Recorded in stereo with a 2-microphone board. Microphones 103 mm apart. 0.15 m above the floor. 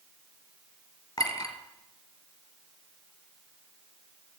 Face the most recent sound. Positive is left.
turn(degrees=45)  # may be behind; listen again after turning